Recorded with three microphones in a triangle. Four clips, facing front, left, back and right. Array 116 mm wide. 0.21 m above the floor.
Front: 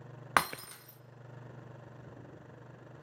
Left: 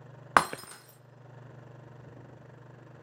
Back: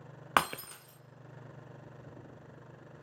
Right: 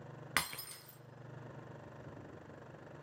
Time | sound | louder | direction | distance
0.4 | breaking glass | left 16 dB, back 1 dB | 100° left | 0.7 m